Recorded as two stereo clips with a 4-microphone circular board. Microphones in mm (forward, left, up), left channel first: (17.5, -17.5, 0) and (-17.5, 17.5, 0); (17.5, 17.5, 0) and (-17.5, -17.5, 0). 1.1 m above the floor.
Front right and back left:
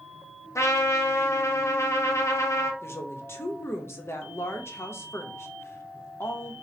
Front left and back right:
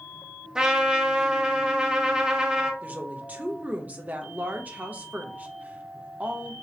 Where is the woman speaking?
80° right, 1.0 m.